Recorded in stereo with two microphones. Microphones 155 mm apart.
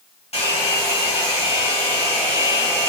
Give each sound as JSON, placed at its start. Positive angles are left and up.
{"t": 0.3, "sound": "a hair dryer", "side_deg": 40, "distance_m": 1.7}